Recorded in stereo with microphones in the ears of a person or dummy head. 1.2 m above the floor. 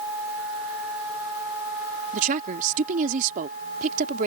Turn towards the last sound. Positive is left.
turn(degrees=-45)  # may be behind; listen again after turning